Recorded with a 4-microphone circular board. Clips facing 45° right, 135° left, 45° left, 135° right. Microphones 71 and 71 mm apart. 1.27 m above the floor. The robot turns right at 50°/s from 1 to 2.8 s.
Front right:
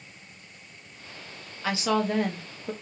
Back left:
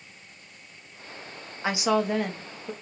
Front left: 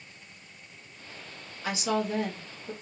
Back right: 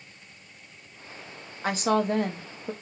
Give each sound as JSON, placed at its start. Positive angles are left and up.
{"t": 1.6, "sound": "a woman speaking", "azimuth_deg": -165, "distance_m": 0.6}